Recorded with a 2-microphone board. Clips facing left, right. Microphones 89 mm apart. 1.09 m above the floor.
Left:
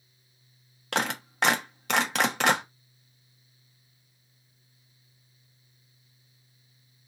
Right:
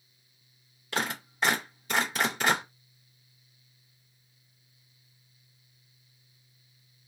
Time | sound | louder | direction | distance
0.9 | a clap | left 3 dB | 75° left (ahead or behind) | 1.0 m